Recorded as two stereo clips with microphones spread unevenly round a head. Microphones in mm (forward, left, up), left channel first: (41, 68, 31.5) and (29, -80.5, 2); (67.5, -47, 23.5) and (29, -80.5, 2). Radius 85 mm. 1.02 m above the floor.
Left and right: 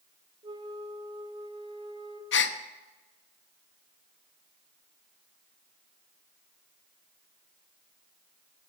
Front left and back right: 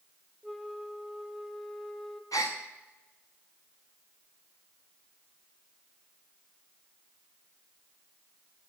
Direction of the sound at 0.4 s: 30° right.